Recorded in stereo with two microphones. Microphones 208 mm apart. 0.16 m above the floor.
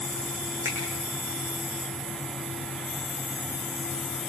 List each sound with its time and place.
0.7 s a finger snap: 80° right, 8.5 m